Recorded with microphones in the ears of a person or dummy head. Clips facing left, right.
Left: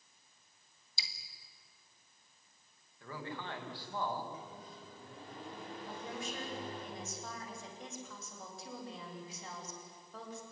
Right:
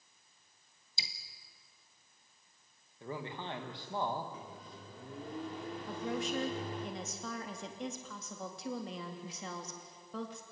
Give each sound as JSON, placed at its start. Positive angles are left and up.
{"t": 1.0, "sound": "dripping", "side_deg": -20, "distance_m": 1.4}
{"t": 3.0, "sound": "a man speaking", "side_deg": -20, "distance_m": 2.5}
{"t": 4.3, "sound": "a microwave", "side_deg": -60, "distance_m": 4.5}
{"t": 5.9, "sound": "a woman speaking", "side_deg": -55, "distance_m": 3.0}